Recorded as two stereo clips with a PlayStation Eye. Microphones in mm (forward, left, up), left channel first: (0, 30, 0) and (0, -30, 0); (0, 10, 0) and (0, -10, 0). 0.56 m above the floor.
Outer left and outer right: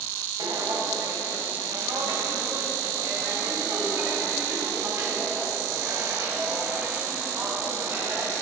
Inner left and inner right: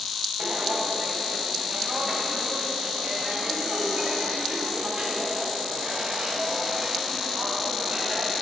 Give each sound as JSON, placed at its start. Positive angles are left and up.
{"t": 0.4, "sound": "footsteps", "side_deg": -65, "distance_m": 2.0}